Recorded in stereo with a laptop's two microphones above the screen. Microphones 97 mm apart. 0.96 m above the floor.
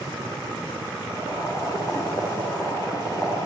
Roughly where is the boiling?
Left.